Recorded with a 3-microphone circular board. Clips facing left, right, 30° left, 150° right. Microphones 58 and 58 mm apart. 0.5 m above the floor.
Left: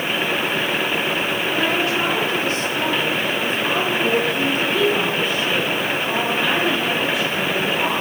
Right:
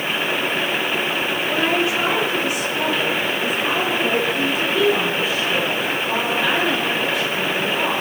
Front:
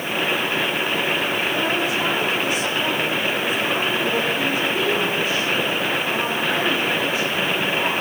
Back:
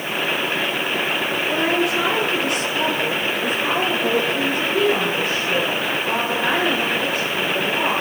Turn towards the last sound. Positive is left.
turn(degrees=175)